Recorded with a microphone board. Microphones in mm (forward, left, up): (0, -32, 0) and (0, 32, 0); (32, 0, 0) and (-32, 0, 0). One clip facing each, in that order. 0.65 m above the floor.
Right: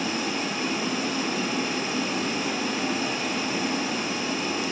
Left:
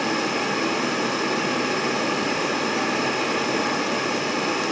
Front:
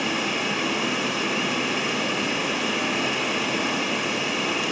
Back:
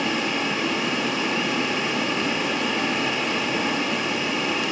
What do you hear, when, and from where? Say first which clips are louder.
0.0 s running water: left 5 dB, back 1 dB; 85° left, 1.0 m